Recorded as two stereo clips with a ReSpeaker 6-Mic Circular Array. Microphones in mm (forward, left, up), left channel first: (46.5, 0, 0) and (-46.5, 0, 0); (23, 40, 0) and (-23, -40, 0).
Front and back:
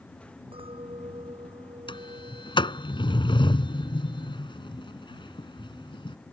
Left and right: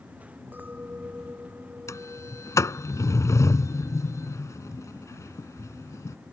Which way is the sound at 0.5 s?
165° left.